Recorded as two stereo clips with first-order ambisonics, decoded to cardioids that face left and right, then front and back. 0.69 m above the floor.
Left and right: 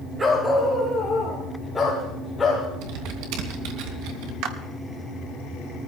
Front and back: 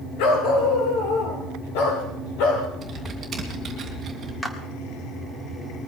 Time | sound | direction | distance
0.2 | a dog barking | 15° right | 3 m
2.8 | typing on a keyboard | 105° right | 3 m
4.4 | a clap | 85° right | 1.7 m